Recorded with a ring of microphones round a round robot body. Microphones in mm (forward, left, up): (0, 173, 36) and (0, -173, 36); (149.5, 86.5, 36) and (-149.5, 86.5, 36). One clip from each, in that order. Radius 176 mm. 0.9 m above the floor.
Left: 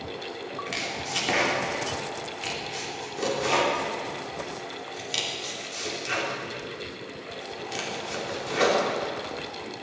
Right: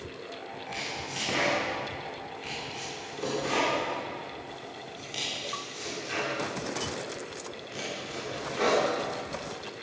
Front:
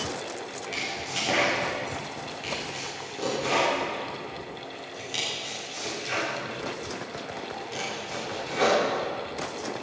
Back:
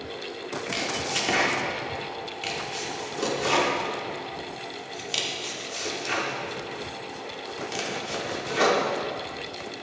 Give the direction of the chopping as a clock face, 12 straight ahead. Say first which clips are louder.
Left 4 dB, back 3 dB; 7 o'clock.